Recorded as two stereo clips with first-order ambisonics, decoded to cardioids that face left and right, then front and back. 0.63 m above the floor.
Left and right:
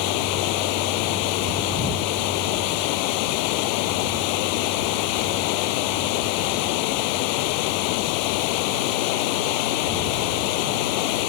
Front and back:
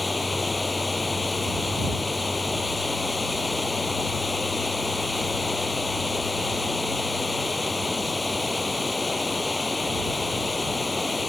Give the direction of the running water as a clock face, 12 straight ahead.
9 o'clock.